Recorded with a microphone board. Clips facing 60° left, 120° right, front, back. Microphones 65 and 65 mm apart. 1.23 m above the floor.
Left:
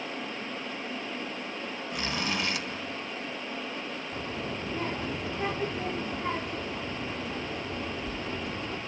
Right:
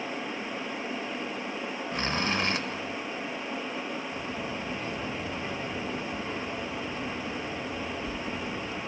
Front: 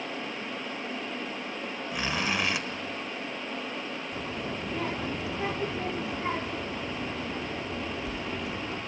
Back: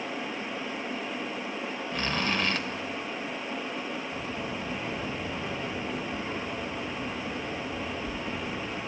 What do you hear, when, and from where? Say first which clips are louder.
1.9 s a zipper: right 3 dB, even; 75° right, 1.6 m
4.1 s a child speaking: right 1 dB, even; 15° left, 2 m